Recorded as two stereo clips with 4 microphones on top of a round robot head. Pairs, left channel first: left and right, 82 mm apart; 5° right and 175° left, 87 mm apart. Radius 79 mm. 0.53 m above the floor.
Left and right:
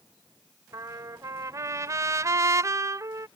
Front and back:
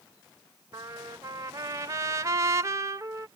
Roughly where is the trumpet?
Behind right.